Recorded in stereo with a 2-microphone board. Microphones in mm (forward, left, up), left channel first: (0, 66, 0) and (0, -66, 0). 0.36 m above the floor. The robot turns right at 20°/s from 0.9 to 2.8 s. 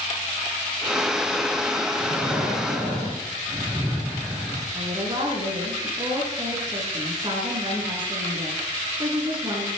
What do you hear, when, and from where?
2.0 s breathing: centre (ahead or behind), 8 m; by 4.7 s 15° right (ahead or behind), 8 m
4.8 s a woman speaking: 35° right (ahead or behind), 6 m